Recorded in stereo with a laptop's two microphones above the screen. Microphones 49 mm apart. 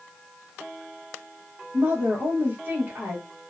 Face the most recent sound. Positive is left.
turn(degrees=-45)  # may be behind; listen again after turning